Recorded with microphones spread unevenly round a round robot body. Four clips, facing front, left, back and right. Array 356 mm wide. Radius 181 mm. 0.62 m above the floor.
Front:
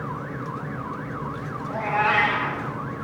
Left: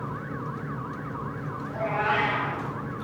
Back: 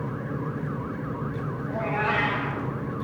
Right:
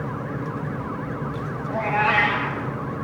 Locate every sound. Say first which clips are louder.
1.7 s a cat meowing: right 5 dB, front 4 dB; 75° right, 8 m